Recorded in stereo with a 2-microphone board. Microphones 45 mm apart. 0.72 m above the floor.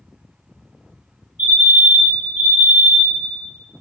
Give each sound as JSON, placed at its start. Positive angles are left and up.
{"t": 1.4, "sound": "a fire alarm", "side_deg": -50, "distance_m": 2.0}